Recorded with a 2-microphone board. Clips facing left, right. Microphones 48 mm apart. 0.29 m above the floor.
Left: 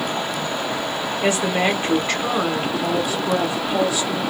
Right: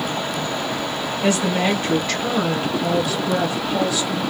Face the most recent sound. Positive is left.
turn(degrees=25)  # may be behind; listen again after turning